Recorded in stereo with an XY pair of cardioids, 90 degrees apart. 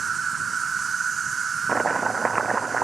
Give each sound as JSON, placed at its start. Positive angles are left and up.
{"t": 0.0, "sound": "an insect", "azimuth_deg": -45}
{"t": 1.7, "sound": "chopping", "azimuth_deg": -30}